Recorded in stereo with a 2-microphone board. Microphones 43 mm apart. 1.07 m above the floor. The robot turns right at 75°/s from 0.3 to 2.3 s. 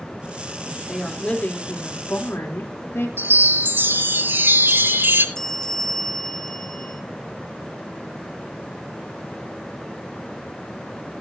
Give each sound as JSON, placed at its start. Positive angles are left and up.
{"t": 0.7, "sound": "a woman speaking", "azimuth_deg": -25, "distance_m": 3.0}
{"t": 3.2, "sound": "a chime", "side_deg": -65, "distance_m": 2.0}
{"t": 5.3, "sound": "a bell", "side_deg": 15, "distance_m": 0.9}